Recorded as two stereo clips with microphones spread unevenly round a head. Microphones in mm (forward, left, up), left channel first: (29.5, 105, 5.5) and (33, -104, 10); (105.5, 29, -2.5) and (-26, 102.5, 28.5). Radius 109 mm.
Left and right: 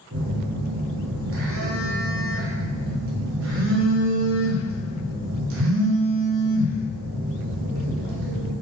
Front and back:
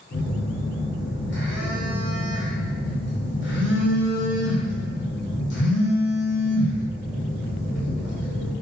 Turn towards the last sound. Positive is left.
turn(degrees=-70)